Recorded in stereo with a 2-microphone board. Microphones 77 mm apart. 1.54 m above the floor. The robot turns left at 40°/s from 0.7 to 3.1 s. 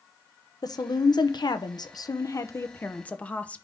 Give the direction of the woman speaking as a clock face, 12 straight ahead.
8 o'clock.